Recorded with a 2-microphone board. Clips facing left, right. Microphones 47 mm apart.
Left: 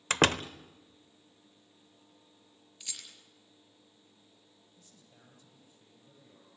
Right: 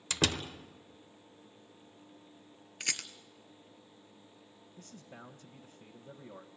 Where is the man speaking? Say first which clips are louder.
Right 13 dB; 55° right (ahead or behind), 1.4 m.